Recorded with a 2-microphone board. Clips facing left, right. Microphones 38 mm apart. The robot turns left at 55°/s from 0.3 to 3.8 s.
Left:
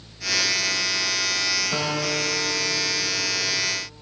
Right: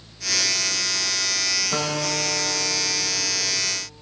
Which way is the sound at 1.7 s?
170° right.